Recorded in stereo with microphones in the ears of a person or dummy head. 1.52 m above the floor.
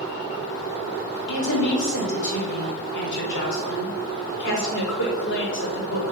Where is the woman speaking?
75° left (ahead or behind), 4.5 m.